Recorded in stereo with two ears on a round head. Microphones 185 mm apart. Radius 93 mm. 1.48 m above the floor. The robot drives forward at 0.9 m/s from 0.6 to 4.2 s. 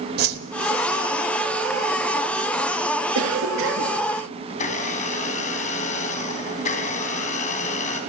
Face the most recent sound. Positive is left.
turn(degrees=35)  # may be behind; listen again after turning